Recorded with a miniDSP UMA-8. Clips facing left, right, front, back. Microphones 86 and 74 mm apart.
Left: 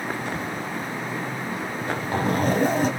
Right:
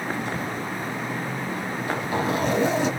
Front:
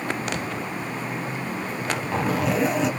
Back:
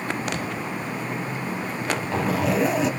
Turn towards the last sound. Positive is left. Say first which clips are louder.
# right 1 dB, even
turn(degrees=90)